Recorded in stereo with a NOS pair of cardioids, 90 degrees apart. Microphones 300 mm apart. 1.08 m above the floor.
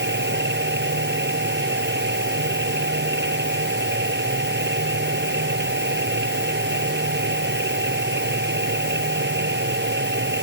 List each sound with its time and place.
0.0 s a machine running: 35° right